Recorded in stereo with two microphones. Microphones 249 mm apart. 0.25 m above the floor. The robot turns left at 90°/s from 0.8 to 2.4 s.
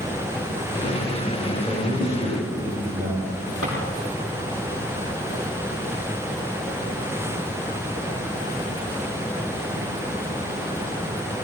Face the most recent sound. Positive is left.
turn(degrees=-70)  # may be behind; listen again after turning